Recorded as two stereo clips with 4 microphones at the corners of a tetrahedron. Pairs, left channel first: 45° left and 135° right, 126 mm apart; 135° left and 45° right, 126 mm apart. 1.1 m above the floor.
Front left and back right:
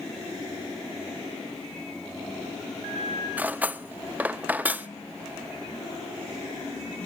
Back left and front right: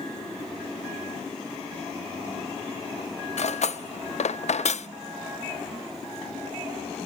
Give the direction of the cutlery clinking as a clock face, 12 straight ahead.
7 o'clock.